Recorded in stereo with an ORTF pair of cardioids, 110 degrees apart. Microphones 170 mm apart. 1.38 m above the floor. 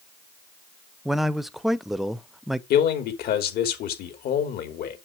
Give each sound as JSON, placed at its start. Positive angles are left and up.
{"t": 1.1, "sound": "a man speaking", "azimuth_deg": 0, "distance_m": 0.8}
{"t": 2.7, "sound": "a man speaking", "azimuth_deg": 65, "distance_m": 3.0}